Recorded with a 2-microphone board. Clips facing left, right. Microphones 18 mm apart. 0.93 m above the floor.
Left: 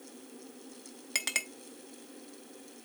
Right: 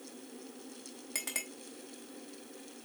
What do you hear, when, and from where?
1.1 s a clink: 45° left (ahead or behind), 1.0 m